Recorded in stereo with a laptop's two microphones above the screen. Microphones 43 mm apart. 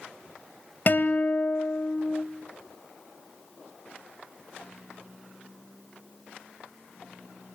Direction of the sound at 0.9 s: 45° left (ahead or behind).